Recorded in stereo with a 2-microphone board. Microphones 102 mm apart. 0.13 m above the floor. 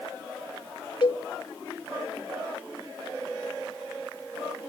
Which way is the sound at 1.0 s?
55° left (ahead or behind).